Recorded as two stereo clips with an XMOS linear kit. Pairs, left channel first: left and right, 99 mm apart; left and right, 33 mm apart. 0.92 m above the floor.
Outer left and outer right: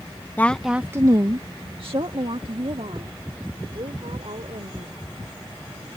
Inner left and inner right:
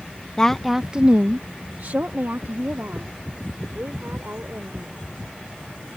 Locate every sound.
0.4 s a woman speaking: 20° left (ahead or behind); by 5.0 s 80° right